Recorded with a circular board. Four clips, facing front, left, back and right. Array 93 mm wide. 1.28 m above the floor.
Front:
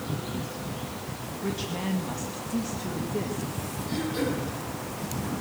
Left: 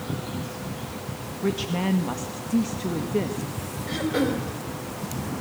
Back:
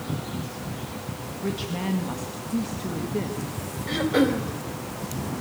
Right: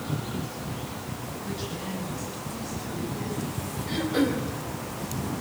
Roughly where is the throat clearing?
Behind.